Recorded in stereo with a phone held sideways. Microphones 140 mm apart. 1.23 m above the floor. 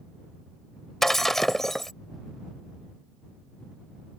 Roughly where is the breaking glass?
Centre.